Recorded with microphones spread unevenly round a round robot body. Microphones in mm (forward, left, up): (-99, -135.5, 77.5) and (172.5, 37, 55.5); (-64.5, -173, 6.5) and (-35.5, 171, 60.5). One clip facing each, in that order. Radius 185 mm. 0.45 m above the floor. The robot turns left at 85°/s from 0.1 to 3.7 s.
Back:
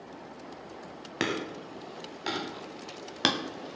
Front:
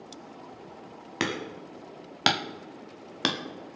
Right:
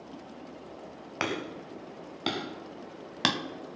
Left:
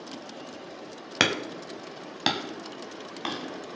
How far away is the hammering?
About 0.9 m.